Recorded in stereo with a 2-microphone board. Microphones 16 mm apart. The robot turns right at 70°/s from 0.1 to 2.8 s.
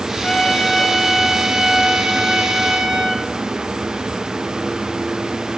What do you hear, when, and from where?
0.2 s a trumpet: 120° left, 7.5 m; by 3.2 s 60° right, 7.5 m